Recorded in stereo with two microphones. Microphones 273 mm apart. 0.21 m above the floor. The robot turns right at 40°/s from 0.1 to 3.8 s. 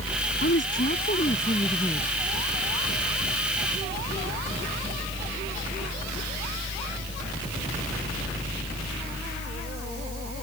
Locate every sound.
0.4 s a woman speaking: 105° left; by 2.1 s 170° left